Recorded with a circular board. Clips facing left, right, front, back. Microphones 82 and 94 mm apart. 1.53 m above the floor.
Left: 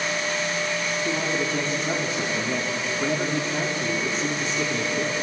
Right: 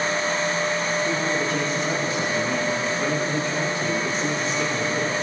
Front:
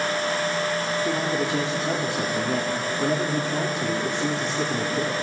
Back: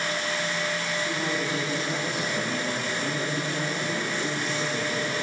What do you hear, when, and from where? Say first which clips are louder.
1.1 s a man speaking: right 2 dB, front 4 dB; 20° left, 5 m